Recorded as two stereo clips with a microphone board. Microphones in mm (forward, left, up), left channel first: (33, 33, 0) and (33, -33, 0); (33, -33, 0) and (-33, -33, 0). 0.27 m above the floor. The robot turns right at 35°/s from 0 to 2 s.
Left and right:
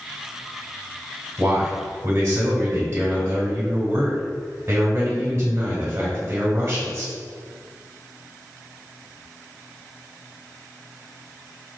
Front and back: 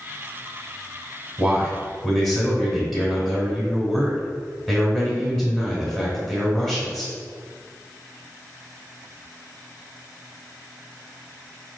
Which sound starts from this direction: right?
A man speaking, at 1.4 s.